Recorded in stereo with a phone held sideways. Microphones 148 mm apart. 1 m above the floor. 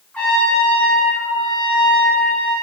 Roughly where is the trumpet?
Centre.